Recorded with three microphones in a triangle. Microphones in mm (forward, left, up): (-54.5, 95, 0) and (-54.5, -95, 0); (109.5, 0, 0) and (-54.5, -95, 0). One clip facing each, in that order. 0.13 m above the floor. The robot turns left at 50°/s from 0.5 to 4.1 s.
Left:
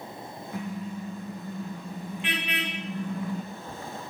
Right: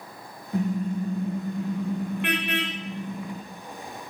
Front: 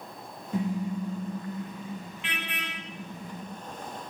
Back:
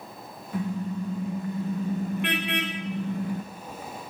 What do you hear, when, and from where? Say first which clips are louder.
0.5 s a car horn: right 9 dB, even; 30° right, 6 m; by 3.4 s 175° right, 6 m